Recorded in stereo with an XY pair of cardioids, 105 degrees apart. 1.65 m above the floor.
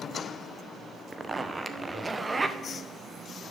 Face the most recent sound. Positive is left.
turn(degrees=-20)